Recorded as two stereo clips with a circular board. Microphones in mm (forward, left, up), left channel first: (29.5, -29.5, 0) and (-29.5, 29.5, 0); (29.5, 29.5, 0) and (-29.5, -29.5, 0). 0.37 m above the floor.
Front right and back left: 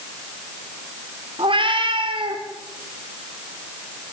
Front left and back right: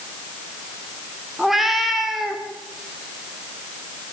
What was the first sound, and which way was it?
A cat meowing, 135° left.